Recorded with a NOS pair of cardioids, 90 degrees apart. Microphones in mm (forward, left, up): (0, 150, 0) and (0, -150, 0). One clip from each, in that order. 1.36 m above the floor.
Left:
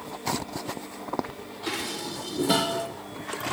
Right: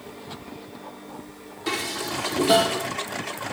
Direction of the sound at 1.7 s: 15° right.